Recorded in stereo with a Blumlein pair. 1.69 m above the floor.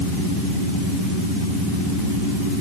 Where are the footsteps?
I don't hear footsteps.